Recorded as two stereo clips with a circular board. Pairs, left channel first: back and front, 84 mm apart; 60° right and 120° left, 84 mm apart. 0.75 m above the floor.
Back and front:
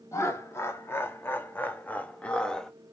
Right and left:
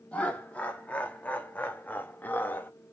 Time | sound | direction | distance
0.1 | laughter | 130° right | 2 m